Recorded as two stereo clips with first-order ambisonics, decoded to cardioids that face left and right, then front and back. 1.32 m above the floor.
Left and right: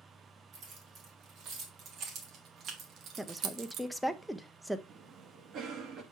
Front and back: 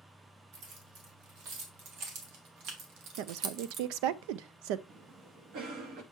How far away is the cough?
About 1.8 m.